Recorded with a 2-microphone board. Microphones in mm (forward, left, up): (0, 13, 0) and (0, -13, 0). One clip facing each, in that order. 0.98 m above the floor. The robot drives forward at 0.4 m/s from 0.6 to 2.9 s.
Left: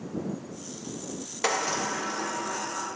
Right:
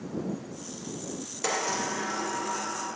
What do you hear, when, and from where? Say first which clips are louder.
1.4 s a sliding door: left 2 dB; 35° left (ahead or behind), 0.6 m; by 2.9 s 20° left (ahead or behind), 1.1 m